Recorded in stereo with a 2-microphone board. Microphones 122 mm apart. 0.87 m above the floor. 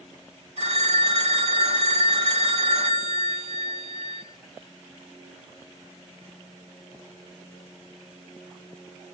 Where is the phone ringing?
65° right (ahead or behind), 4.5 m.